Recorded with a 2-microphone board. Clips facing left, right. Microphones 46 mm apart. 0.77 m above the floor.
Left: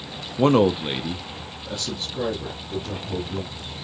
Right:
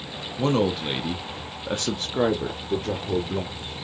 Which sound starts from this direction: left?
A man speaking, at 0.4 s.